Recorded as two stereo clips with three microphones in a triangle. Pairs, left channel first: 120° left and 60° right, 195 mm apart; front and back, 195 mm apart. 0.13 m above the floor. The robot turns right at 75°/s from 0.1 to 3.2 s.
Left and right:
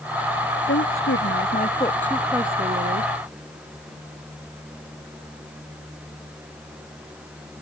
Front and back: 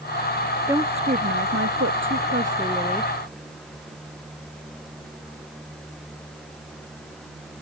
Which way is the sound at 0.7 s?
100° left.